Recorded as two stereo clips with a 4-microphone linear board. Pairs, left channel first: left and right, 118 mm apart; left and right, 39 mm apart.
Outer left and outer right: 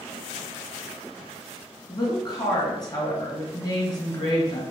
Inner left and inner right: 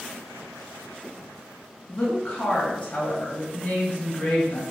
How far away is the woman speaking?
About 3.5 m.